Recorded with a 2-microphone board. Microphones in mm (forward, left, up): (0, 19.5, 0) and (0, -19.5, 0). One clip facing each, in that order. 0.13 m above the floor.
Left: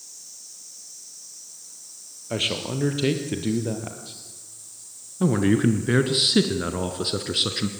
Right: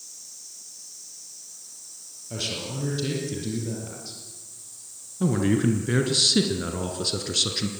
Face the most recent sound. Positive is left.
turn(degrees=20)  # may be behind; listen again after turning